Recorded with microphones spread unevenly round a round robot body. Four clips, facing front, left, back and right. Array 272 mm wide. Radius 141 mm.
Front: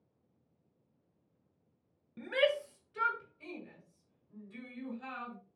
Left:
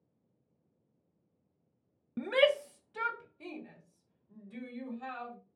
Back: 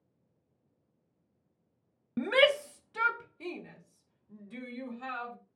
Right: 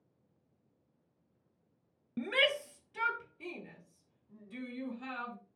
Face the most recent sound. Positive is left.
turn(degrees=180)